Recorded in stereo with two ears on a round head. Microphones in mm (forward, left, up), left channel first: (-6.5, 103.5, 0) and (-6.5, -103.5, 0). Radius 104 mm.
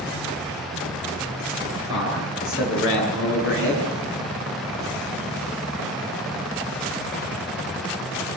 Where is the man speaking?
65° left (ahead or behind), 9.5 m; by 3.9 s 55° left (ahead or behind), 9 m.